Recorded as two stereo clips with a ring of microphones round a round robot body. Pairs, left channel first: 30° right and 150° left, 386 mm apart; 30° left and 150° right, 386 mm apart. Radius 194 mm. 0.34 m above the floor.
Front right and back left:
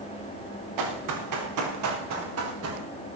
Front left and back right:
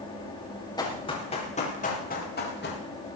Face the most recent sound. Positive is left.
turn(degrees=95)